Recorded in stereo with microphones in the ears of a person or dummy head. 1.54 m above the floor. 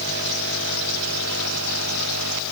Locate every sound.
Only background noise.